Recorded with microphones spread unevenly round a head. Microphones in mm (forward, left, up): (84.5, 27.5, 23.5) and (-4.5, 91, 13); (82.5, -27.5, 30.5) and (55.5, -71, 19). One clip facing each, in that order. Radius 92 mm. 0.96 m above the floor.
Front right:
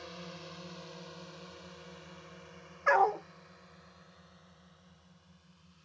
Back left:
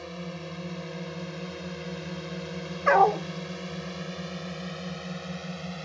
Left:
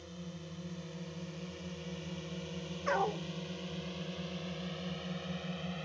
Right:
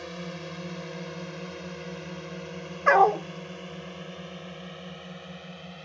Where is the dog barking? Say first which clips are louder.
Back left 7 dB, right 14 dB; 155° right.